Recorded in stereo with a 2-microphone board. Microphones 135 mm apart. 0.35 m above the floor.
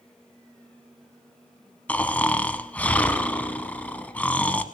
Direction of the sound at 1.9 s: 10° left (ahead or behind).